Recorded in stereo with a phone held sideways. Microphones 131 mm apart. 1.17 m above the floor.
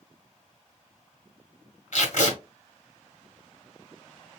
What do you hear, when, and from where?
1.9 s tape being pulled: 65° left (ahead or behind), 1.9 m